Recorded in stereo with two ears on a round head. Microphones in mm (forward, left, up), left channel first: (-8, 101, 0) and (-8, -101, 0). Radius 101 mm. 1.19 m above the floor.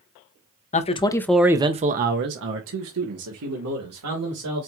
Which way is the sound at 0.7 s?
35° left (ahead or behind).